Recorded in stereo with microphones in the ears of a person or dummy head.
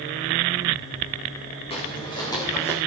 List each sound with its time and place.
1.7 s footsteps: 30° left (ahead or behind), 4.5 m; by 2.8 s 5° left (ahead or behind), 4.5 m